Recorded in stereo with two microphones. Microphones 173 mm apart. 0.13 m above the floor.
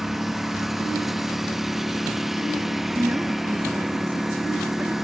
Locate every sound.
0.0 s a lawn mower: centre (ahead or behind)
3.0 s a woman speaking: 10° right (ahead or behind)